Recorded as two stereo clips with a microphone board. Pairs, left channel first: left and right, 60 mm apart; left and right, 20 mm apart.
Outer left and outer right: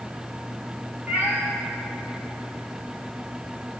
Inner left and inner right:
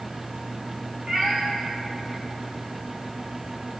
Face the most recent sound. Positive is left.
turn(degrees=-25)  # may be behind; listen again after turning